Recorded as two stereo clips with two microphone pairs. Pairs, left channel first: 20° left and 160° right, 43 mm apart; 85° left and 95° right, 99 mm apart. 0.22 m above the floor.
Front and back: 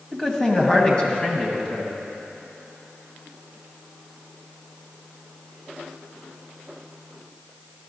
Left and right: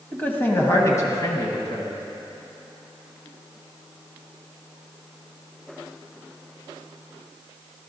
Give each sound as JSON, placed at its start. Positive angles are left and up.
{"t": 0.1, "sound": "a man speaking", "azimuth_deg": 65, "distance_m": 1.1}